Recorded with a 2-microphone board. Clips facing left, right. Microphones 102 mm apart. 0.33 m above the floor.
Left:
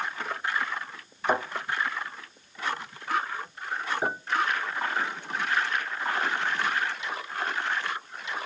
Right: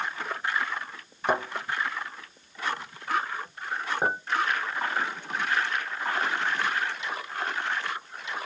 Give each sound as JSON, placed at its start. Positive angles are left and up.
{"t": 1.3, "sound": "a thud", "side_deg": -55, "distance_m": 1.7}
{"t": 4.0, "sound": "a clink", "side_deg": -50, "distance_m": 1.6}